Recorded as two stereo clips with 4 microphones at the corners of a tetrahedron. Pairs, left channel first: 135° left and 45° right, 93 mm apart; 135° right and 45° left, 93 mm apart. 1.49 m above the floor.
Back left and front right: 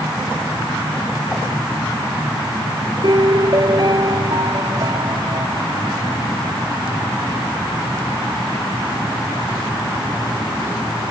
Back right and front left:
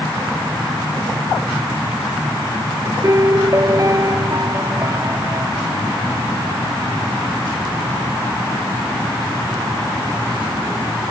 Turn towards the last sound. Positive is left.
turn(degrees=-5)